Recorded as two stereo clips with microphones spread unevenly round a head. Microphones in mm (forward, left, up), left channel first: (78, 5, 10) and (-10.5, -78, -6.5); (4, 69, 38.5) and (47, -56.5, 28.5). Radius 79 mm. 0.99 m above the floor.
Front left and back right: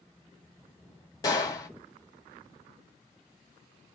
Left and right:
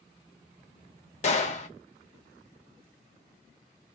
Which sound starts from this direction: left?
A gunshot, at 1.2 s.